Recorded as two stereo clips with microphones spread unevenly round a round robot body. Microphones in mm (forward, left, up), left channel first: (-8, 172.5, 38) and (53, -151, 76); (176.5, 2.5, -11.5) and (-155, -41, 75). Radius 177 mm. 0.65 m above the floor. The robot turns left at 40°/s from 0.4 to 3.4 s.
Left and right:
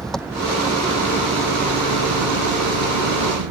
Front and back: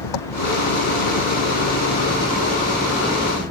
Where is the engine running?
10° left; by 3.5 s 110° right.